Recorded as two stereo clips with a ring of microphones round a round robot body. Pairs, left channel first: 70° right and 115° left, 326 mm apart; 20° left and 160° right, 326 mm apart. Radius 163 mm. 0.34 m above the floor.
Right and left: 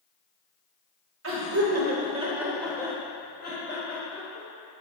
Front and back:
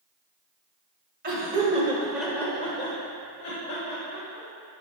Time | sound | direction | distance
1.2 | laughter | 150° left | 1.9 m